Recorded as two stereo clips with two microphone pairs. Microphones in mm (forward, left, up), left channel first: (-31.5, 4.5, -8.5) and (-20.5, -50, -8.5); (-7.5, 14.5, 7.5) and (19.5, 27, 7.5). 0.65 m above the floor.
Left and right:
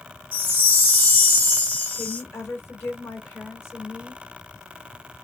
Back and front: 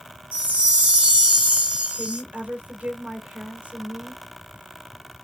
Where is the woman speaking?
60° left, 2 m.